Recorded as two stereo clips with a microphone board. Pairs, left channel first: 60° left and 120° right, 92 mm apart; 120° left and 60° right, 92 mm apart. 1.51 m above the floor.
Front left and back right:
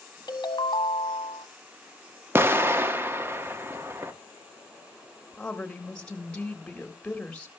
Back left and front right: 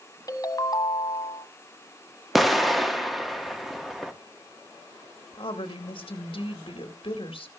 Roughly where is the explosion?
Behind right.